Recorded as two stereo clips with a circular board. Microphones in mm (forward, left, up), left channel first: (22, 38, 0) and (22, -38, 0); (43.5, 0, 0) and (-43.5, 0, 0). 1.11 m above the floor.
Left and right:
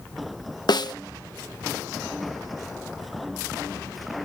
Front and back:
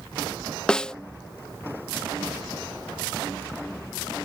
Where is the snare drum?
80° left.